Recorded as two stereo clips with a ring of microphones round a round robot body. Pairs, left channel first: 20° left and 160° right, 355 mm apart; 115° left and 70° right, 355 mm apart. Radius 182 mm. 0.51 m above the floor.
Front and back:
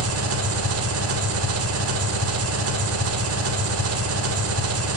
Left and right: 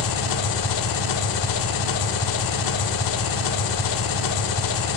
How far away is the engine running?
About 0.8 m.